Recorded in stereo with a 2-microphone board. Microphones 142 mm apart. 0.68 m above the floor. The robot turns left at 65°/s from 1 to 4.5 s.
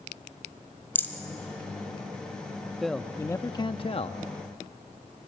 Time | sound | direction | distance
0.9 | a rattle | 15° left (ahead or behind) | 1.6 m
2.8 | a man speaking | straight behind | 0.6 m